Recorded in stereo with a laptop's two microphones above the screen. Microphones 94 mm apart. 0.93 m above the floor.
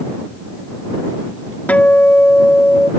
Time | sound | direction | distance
1.7 | a guitar | 15° left (ahead or behind) | ?